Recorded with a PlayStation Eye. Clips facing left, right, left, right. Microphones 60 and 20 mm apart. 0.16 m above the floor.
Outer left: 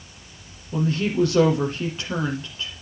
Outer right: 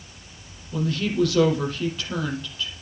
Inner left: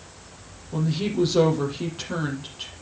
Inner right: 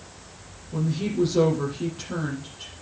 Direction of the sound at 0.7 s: 25° left (ahead or behind).